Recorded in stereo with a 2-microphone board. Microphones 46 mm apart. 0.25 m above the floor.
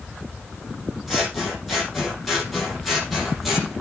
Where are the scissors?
Centre (ahead or behind), 6 m.